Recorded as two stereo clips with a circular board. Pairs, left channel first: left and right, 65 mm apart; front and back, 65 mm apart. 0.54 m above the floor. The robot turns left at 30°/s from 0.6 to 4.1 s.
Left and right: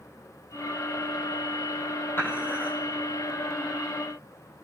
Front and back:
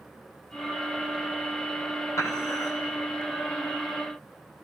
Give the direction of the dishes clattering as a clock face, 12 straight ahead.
11 o'clock.